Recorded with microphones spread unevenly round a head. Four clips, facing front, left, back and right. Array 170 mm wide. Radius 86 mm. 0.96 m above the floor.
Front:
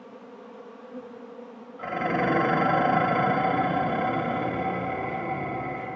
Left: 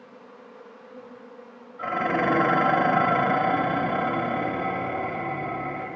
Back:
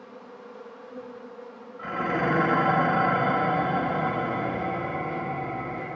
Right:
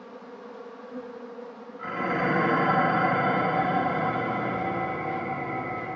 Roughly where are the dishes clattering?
Ahead left.